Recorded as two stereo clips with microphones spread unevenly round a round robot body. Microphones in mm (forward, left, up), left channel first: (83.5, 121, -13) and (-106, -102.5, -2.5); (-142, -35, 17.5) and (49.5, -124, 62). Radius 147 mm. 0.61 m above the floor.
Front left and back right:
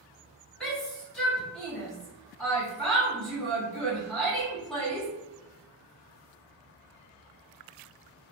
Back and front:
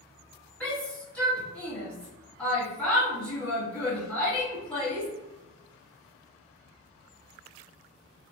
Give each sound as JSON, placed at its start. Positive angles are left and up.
{"t": 0.6, "sound": "a shout", "azimuth_deg": 125, "distance_m": 1.1}